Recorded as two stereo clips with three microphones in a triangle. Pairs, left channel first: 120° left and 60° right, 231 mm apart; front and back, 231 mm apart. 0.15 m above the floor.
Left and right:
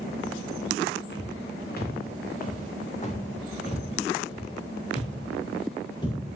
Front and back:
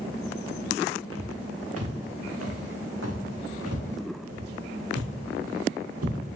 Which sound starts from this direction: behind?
Footsteps, at 1.1 s.